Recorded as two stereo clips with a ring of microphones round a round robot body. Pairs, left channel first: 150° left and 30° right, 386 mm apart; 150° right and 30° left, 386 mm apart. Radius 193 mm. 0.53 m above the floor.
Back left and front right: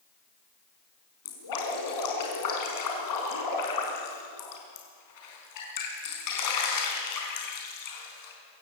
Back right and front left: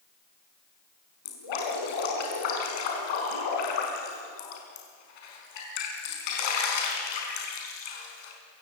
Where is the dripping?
170° right, 5 m.